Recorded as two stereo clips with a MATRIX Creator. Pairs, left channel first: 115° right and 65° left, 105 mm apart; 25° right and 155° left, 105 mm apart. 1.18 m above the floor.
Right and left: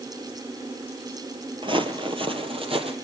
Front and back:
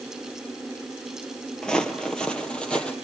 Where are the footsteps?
60° left, 1.8 m.